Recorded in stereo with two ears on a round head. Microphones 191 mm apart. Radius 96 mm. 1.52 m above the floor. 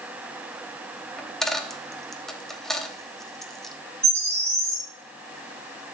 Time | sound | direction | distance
1.2 | a dropped coin | centre (ahead or behind) | 1.0 m
4.0 | a bird | 10° right (ahead or behind) | 6.5 m